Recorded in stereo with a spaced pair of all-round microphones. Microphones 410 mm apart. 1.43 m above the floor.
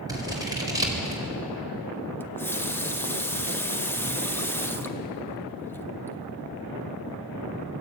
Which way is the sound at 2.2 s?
5° left (ahead or behind).